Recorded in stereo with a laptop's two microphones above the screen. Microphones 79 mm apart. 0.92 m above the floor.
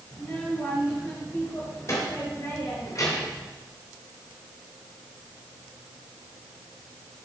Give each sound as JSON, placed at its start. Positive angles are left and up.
{"t": 0.1, "sound": "a child speaking", "side_deg": 30, "distance_m": 4.0}